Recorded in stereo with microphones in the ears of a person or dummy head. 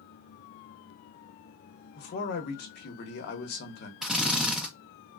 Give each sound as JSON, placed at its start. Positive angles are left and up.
{"t": 1.9, "sound": "a man speaking", "side_deg": 50, "distance_m": 0.9}
{"t": 4.0, "sound": "a drill", "side_deg": 0, "distance_m": 0.6}